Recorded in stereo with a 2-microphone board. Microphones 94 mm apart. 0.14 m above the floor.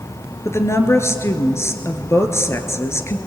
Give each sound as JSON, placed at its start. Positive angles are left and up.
{"t": 0.5, "sound": "a woman speaking", "side_deg": 30, "distance_m": 1.8}